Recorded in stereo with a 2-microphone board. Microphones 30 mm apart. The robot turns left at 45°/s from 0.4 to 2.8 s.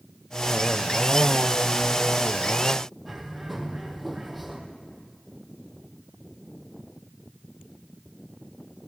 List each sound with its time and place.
3.0 s a bird: 5° right (ahead or behind), 2.5 m